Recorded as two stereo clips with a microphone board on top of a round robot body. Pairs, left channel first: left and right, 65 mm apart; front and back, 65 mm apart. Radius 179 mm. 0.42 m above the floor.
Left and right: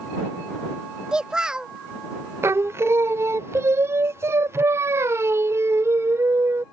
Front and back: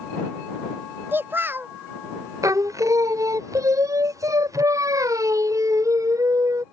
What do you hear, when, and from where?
1.1 s a child speaking: 160° right
2.4 s singing: 145° right